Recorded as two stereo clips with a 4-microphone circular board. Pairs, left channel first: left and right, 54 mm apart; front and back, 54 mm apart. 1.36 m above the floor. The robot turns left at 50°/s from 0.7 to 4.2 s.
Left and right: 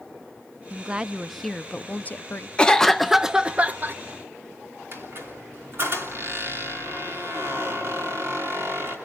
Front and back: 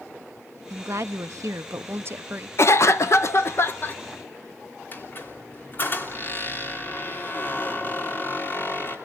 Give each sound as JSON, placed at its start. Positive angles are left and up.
{"t": 0.7, "sound": "a woman speaking", "azimuth_deg": -150, "distance_m": 0.6}
{"t": 2.6, "sound": "a cough", "azimuth_deg": 20, "distance_m": 0.8}
{"t": 4.9, "sound": "a squeak", "azimuth_deg": -50, "distance_m": 3.0}